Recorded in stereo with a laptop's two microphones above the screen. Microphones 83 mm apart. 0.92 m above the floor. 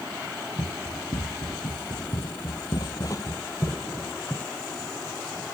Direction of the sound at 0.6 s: 70° left (ahead or behind).